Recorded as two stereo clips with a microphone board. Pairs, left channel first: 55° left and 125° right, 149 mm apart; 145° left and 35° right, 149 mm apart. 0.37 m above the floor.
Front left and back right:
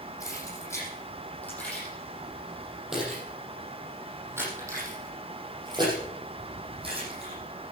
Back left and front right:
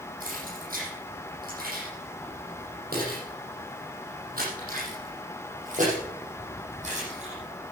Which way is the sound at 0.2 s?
15° right.